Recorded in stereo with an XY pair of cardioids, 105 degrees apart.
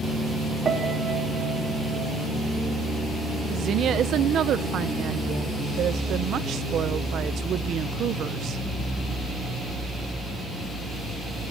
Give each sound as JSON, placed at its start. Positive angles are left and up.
{"t": 0.7, "sound": "a piano", "azimuth_deg": -45, "distance_m": 3.5}
{"t": 3.5, "sound": "a woman speaking", "azimuth_deg": -65, "distance_m": 0.9}